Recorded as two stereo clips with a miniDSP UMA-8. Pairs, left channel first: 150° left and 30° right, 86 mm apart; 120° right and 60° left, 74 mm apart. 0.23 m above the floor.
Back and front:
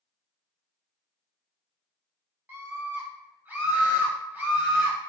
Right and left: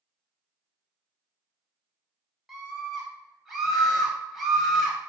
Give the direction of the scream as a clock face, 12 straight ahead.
1 o'clock.